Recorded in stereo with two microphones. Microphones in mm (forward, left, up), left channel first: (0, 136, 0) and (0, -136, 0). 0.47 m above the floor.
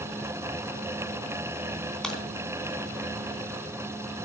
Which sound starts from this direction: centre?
A crack, at 2.0 s.